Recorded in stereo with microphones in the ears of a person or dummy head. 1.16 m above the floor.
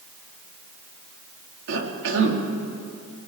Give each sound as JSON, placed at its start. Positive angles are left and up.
{"t": 1.7, "sound": "a cough", "side_deg": -70, "distance_m": 3.0}